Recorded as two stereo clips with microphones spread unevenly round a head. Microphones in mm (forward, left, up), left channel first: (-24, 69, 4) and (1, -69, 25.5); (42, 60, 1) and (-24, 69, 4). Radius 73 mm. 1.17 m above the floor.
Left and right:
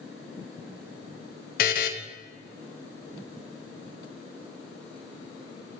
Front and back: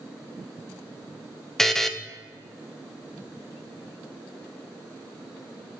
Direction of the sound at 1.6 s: 80° left.